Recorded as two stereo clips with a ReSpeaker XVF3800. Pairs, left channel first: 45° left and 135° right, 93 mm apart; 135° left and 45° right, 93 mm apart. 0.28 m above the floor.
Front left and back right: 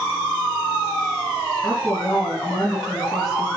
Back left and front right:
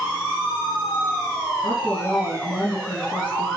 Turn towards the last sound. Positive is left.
turn(degrees=140)